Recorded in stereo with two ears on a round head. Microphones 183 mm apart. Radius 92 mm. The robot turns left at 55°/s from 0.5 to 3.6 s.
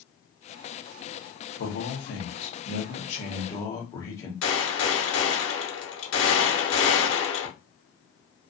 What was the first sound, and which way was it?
A man speaking, 125° left.